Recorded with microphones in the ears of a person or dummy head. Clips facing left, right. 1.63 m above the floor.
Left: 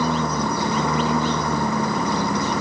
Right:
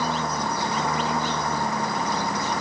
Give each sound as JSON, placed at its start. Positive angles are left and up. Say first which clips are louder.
{"t": 0.0, "sound": "a lawn mower", "louder": "left 5 dB", "side_deg": 65}